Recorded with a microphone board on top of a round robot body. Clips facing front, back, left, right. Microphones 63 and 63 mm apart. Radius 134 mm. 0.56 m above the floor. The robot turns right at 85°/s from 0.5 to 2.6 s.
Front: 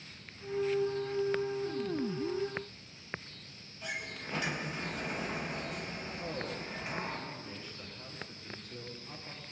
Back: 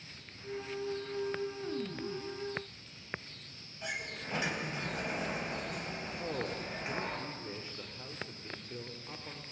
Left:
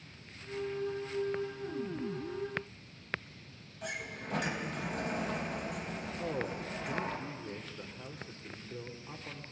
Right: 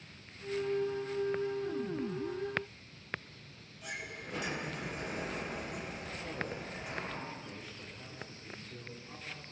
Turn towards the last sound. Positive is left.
turn(degrees=120)